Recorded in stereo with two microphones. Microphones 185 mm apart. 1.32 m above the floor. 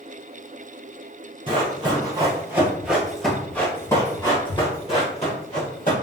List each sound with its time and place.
1.5 s running footsteps: 30° right (ahead or behind), 1.6 m; by 5.9 s 45° left (ahead or behind), 1.8 m